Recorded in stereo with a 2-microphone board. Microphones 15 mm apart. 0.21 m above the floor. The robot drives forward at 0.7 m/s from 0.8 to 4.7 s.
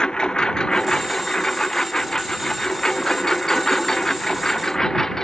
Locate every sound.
0.0 s a lawn mower: 55° left (ahead or behind); by 5.2 s 25° left (ahead or behind)